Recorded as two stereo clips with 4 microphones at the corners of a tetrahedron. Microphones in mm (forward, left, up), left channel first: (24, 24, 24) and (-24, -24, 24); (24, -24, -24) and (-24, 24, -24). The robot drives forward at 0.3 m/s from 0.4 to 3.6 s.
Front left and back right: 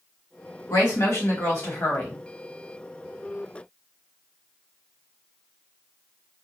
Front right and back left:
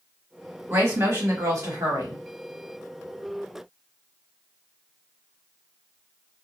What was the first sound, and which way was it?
A woman speaking, 80° left.